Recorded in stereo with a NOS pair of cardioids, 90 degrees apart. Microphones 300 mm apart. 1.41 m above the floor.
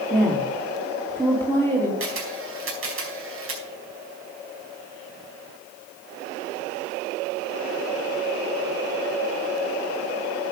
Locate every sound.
0.1 s a woman speaking: 10° right, 3 m
2.0 s a camera shutter: 45° right, 4.5 m